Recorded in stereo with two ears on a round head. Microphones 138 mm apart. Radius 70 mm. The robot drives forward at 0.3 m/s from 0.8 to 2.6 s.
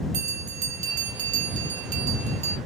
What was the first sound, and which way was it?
A bell, 50° right (ahead or behind).